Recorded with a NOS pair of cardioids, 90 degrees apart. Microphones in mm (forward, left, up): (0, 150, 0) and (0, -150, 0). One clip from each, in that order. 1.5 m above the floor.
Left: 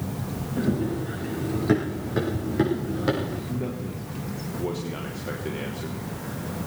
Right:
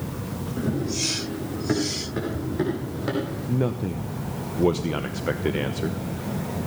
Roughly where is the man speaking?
Ahead right.